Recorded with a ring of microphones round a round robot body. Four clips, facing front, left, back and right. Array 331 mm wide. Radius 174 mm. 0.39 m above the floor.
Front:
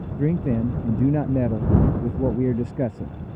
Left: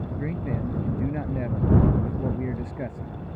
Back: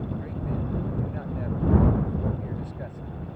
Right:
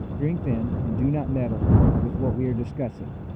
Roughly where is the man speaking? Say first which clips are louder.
Right 6 dB, front 10 dB; ahead.